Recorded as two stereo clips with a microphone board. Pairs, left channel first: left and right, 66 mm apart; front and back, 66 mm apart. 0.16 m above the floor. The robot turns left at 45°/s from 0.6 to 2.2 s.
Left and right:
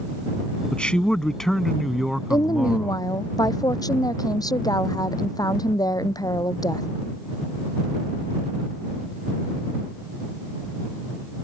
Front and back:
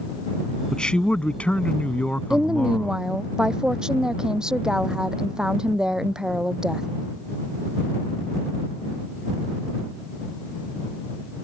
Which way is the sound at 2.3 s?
100° left.